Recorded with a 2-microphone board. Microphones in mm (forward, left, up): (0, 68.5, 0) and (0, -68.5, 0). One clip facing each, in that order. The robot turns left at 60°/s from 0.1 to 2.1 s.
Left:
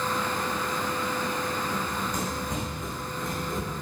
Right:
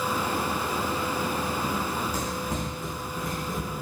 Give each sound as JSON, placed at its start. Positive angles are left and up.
{"t": 1.6, "sound": "running footsteps", "side_deg": -40, "distance_m": 2.0}